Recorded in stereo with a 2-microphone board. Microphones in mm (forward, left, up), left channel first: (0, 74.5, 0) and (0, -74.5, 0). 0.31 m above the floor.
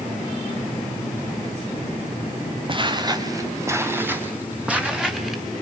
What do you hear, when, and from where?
2.7 s footsteps: 35° right (ahead or behind), 2.5 m; by 5.4 s 5° right (ahead or behind), 4.5 m